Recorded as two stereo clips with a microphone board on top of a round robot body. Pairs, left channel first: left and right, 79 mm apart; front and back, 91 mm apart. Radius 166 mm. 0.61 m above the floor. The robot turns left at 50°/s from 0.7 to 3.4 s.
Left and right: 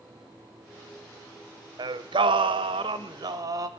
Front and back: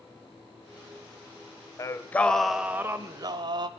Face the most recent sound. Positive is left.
turn(degrees=-135)